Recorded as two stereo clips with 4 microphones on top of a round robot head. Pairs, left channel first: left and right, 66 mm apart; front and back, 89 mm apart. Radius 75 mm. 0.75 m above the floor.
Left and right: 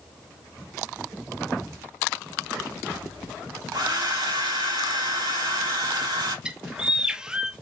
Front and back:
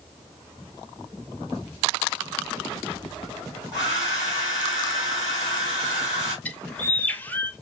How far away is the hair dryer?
About 3.5 m.